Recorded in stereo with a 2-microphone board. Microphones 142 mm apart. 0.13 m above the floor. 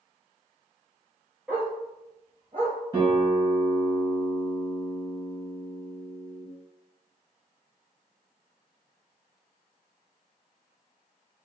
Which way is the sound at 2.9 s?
30° right (ahead or behind).